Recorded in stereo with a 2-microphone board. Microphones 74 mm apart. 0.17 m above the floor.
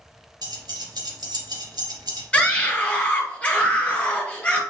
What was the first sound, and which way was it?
Keys jangling, 70° right (ahead or behind).